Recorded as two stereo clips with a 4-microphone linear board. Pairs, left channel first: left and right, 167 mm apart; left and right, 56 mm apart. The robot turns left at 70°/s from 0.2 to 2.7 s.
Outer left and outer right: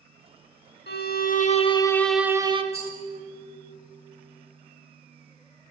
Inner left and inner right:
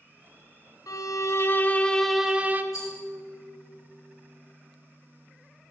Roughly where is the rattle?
Left.